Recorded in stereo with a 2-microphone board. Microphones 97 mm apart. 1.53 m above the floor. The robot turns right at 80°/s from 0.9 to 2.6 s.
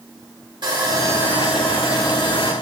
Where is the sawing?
50° right, 1.4 m; by 2.5 s 80° left, 1.4 m.